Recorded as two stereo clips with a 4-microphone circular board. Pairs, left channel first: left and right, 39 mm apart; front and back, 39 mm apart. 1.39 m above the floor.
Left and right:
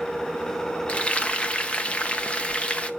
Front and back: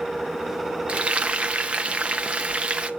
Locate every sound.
0.9 s frying: 135° left, 0.7 m